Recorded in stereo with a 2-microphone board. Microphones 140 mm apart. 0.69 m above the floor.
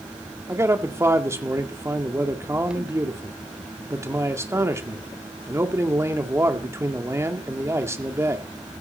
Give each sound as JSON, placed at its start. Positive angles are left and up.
{"t": 0.5, "sound": "a man speaking", "side_deg": -20, "distance_m": 1.8}